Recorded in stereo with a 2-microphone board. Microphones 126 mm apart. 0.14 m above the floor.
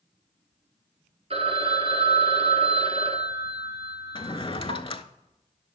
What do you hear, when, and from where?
1.3 s a phone ringing: 50° right (ahead or behind), 1.3 m
4.2 s a drawer: 40° left (ahead or behind), 0.6 m